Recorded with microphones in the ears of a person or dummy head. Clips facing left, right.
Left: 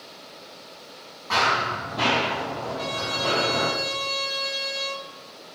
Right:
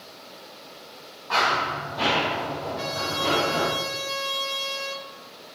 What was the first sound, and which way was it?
Running footsteps, 25° left (ahead or behind).